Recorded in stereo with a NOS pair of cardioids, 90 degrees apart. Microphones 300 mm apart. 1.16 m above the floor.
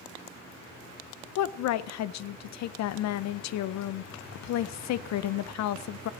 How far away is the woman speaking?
About 0.6 m.